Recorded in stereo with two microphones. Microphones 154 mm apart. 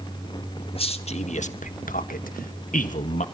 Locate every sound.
0.7 s a man speaking: 40° left (ahead or behind), 2.0 m; by 3.2 s 50° left (ahead or behind), 1.8 m